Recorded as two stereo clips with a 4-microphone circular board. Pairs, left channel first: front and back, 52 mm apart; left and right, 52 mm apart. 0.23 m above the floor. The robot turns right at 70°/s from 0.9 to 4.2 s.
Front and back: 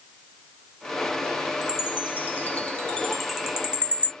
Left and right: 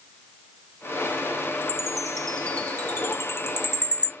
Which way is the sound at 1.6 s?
30° right.